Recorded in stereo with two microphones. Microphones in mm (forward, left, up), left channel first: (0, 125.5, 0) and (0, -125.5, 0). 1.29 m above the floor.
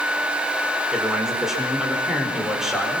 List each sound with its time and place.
0.9 s a man speaking: centre (ahead or behind), 5.5 m